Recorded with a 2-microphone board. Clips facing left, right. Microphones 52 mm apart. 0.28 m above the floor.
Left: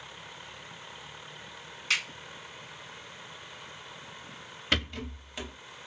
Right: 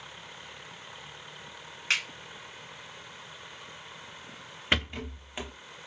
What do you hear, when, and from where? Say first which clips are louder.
1.9 s a finger snap: right 1 dB; 35° right (ahead or behind), 1.6 m
4.7 s a rattle: right 2 dB; 20° right (ahead or behind), 0.5 m